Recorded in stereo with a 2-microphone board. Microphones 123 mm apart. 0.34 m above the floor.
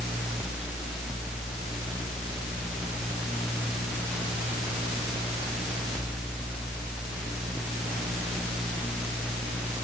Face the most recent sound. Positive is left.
No sound to turn to.